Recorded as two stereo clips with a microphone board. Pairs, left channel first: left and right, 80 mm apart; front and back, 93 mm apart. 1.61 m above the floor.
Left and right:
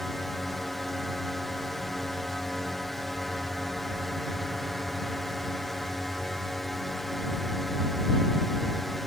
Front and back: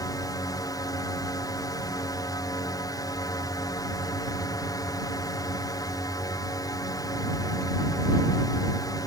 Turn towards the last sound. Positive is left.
turn(degrees=5)